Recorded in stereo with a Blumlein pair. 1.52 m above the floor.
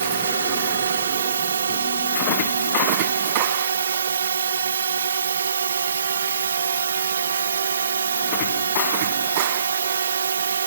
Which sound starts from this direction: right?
A drone, at 0.0 s.